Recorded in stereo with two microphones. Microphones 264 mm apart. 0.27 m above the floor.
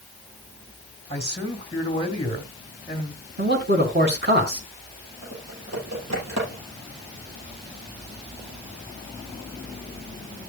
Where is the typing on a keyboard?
80° right, 6.5 m.